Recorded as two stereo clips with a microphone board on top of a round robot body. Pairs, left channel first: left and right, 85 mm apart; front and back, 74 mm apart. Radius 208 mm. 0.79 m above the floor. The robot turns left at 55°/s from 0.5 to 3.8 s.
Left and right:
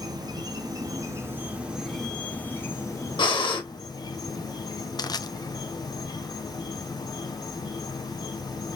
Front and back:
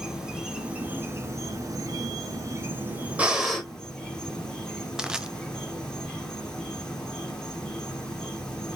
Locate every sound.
0.0 s an insect: 100° right, 1.8 m; by 8.8 s 80° left, 1.8 m
3.2 s breathing: 110° left, 1.6 m; by 3.6 s 85° left, 1.6 m
5.0 s crushing: 105° left, 0.8 m